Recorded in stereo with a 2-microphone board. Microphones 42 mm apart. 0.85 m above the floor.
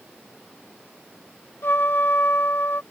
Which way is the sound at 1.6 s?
65° left (ahead or behind).